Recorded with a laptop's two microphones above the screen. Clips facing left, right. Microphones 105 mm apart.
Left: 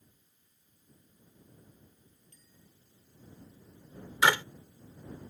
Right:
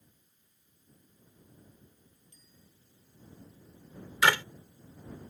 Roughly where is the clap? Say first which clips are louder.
Even; centre.